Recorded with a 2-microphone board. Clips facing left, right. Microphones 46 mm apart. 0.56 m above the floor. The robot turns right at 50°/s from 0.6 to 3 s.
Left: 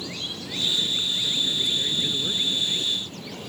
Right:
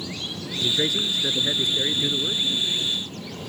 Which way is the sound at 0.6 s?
95° right.